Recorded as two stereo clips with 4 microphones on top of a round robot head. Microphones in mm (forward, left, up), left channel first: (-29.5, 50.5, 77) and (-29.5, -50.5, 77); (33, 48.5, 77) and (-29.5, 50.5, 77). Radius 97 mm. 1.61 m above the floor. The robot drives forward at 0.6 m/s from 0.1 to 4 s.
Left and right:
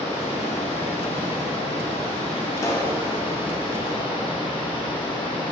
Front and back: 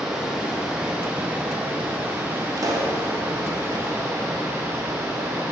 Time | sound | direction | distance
0.0 | running water | 100° left | 3.5 m
2.6 | a pop | 150° left | 2 m